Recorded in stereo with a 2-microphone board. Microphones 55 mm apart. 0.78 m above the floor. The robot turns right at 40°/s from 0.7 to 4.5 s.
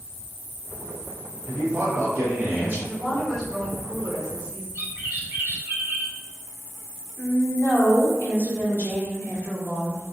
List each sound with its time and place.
1.5 s a man speaking: 100° right, 1.4 m; by 2.8 s 50° right, 1.4 m
2.9 s a woman speaking: centre (ahead or behind), 1.0 m; by 4.7 s 20° right (ahead or behind), 1.0 m
4.8 s a bird: 45° right (ahead or behind), 0.6 m
7.2 s a woman speaking: 40° left (ahead or behind), 1.0 m